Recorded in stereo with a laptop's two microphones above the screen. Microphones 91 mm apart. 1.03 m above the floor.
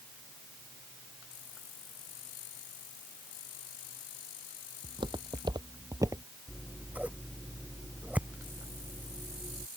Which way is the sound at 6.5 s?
15° right (ahead or behind).